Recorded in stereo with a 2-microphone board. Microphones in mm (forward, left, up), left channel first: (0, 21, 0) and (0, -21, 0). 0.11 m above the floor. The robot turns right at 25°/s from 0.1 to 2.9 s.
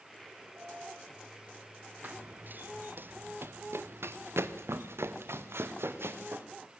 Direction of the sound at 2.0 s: 50° right (ahead or behind).